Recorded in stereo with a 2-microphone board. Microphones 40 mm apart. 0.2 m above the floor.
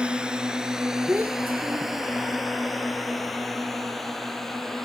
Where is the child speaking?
45° right (ahead or behind).